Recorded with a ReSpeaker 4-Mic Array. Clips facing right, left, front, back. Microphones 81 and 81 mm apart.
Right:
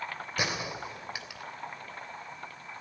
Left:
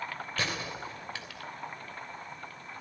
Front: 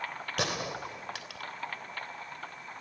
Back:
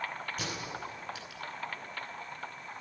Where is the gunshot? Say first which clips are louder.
Right 2 dB, front 5 dB; 15° right, 3 m.